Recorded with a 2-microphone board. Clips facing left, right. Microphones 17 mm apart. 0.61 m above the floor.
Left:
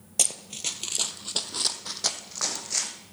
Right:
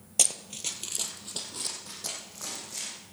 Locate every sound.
0.2 s running footsteps: 5° right (ahead or behind), 0.7 m; by 3.0 s 50° left (ahead or behind), 1.8 m